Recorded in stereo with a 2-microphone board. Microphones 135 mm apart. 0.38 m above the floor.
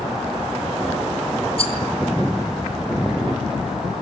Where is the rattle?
50° left (ahead or behind), 3 m.